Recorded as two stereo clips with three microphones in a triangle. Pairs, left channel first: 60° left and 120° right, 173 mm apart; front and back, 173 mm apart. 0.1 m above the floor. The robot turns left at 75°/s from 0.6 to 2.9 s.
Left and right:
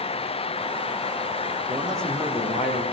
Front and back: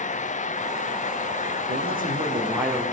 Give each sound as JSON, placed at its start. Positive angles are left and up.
{"t": 1.7, "sound": "a man speaking", "azimuth_deg": 170, "distance_m": 6.0}